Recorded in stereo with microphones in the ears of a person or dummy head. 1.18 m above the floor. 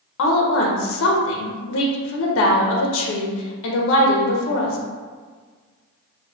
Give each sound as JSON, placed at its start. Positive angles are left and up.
{"t": 0.2, "sound": "a woman speaking", "side_deg": 65, "distance_m": 0.7}